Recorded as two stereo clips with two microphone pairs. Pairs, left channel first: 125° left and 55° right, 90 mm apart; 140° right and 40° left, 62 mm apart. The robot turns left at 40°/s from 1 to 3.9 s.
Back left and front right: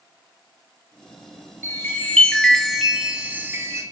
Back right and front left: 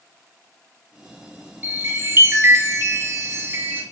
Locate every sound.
1.6 s a chime: 85° left, 0.7 m; by 3.8 s 5° right, 0.7 m